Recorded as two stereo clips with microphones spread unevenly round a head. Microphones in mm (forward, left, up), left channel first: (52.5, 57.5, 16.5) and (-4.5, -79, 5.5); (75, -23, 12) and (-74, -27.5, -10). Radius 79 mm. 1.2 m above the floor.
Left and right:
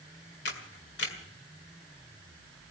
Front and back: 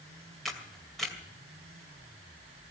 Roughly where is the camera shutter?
Left.